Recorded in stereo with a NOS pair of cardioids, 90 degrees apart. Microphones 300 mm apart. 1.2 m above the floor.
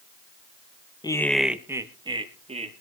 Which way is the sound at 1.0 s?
15° left.